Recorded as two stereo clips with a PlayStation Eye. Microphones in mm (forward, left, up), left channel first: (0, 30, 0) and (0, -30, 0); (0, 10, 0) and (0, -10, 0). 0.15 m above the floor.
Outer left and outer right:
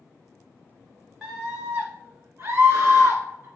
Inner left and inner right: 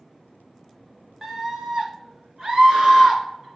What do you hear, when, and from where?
1.2 s a scream: 10° right (ahead or behind), 1.1 m; by 3.5 s 35° right (ahead or behind), 1.6 m